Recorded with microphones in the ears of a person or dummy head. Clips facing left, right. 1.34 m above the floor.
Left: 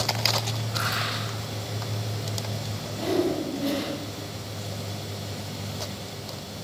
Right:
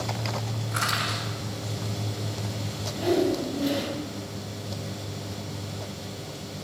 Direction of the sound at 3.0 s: 10° right (ahead or behind).